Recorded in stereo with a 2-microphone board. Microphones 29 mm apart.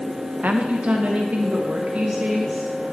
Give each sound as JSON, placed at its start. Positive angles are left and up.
{"t": 0.4, "sound": "a woman speaking", "side_deg": -60, "distance_m": 0.5}